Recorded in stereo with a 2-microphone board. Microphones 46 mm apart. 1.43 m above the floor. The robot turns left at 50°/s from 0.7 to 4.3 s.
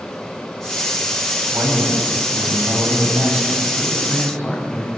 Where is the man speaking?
55° right, 7.5 m; by 4.9 s 165° left, 7.5 m.